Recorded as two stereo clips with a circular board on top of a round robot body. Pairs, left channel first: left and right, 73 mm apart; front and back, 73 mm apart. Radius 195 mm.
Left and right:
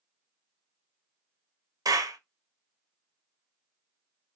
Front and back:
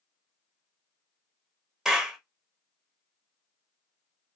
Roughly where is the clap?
Right.